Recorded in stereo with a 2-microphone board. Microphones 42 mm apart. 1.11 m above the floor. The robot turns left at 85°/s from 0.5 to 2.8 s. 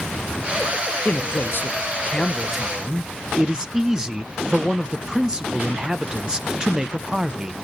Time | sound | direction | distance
1.1 | a man speaking | 125° left | 0.5 m